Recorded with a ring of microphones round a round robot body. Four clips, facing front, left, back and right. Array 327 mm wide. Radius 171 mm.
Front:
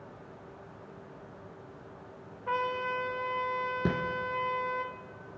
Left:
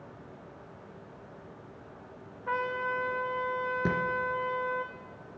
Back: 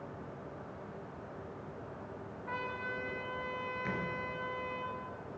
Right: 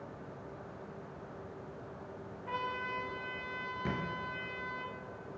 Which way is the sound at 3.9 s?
35° left.